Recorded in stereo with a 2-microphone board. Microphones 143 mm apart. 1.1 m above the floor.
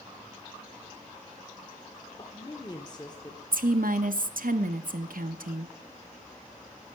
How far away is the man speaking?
About 1.1 m.